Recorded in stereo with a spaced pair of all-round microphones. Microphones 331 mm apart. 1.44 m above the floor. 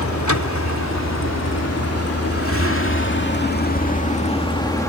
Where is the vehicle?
65° left (ahead or behind); by 4.9 s 10° left (ahead or behind).